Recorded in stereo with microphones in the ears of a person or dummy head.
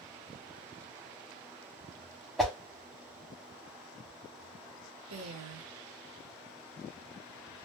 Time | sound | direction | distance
2.4 | a whoosh | centre (ahead or behind) | 0.8 m
5.1 | a woman speaking | 75° right (ahead or behind) | 1.1 m